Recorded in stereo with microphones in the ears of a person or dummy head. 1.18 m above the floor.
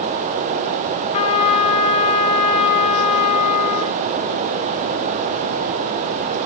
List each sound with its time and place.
1.1 s a trumpet: 30° left (ahead or behind), 3 m